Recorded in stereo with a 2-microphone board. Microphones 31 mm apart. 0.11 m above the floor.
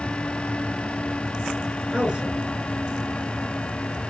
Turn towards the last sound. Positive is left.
turn(degrees=-25)  # may be behind; listen again after turning